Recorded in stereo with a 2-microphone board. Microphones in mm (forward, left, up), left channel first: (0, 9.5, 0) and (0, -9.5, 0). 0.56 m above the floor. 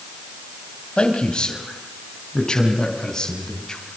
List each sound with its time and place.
1.0 s a man speaking: 55° left (ahead or behind), 3 m; by 3.8 s 35° left (ahead or behind), 5 m